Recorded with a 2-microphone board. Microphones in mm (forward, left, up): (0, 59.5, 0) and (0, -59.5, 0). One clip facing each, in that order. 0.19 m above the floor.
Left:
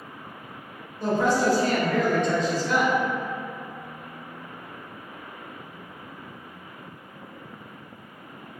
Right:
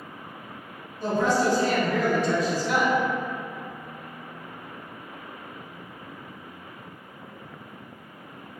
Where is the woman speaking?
20° left (ahead or behind), 1.0 m; by 2.9 s 15° right (ahead or behind), 1.5 m.